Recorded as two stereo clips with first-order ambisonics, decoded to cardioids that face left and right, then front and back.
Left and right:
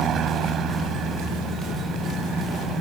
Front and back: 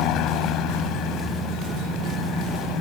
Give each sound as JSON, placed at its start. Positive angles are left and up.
{"t": 0.0, "sound": "a helicopter", "azimuth_deg": -35}